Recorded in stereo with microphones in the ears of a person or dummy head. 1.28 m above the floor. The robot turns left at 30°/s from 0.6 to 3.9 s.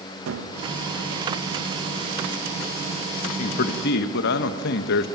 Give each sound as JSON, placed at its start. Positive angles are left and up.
{"t": 0.3, "sound": "a gunshot", "side_deg": -65, "distance_m": 1.3}
{"t": 3.2, "sound": "a man speaking", "side_deg": 50, "distance_m": 0.9}